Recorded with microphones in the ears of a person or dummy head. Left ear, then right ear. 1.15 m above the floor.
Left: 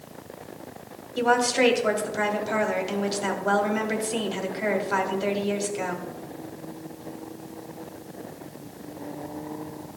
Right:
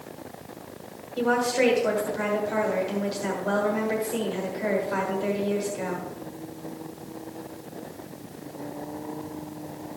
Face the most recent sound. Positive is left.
turn(degrees=30)  # may be behind; listen again after turning